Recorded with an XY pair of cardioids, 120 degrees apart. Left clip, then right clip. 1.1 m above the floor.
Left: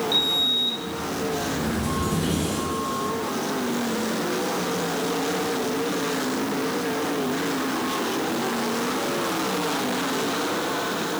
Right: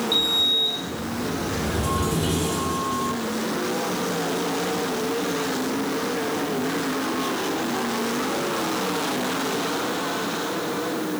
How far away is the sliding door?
About 3 m.